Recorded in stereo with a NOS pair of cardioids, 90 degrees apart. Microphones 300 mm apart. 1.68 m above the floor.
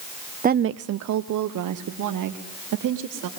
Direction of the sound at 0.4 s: 25° right.